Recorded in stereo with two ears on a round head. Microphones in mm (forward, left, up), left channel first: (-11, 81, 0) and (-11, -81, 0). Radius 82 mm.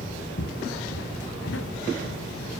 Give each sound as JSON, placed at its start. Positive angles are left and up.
{"t": 0.4, "sound": "footsteps", "side_deg": 65, "distance_m": 2.0}